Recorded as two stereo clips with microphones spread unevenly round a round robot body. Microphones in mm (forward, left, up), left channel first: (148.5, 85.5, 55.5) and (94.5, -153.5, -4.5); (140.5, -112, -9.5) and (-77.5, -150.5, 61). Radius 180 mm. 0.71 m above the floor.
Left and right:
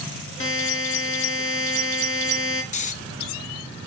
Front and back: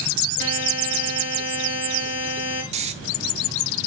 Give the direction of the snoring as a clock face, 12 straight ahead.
8 o'clock.